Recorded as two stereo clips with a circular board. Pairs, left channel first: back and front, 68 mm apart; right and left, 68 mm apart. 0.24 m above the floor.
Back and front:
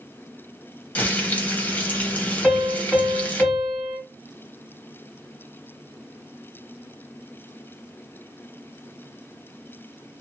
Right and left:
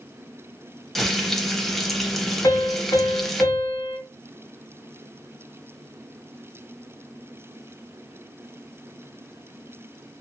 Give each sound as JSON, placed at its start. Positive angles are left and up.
{"t": 0.9, "sound": "frying", "azimuth_deg": -175, "distance_m": 0.7}
{"t": 2.4, "sound": "a piano", "azimuth_deg": -80, "distance_m": 2.0}